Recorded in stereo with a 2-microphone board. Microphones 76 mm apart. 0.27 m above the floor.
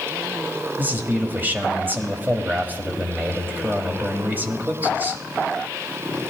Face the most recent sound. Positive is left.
turn(degrees=-25)  # may be behind; listen again after turning